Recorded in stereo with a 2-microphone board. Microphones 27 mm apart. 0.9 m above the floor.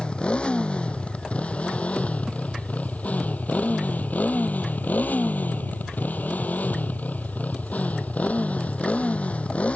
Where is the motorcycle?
35° left (ahead or behind); by 9.8 s 50° left (ahead or behind).